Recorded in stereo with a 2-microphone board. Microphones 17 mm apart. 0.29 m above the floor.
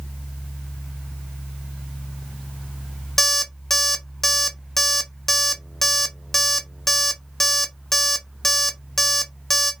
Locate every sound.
3.2 s an alarm clock: 20° left (ahead or behind), 0.7 m